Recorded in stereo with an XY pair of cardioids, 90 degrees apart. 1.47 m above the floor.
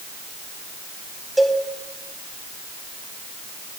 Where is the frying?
I don't hear frying.